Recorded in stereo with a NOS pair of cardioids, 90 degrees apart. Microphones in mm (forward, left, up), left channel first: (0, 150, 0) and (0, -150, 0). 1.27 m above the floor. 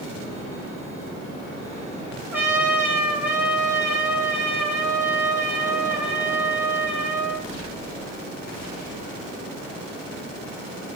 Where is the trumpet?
5° right, 1.0 m.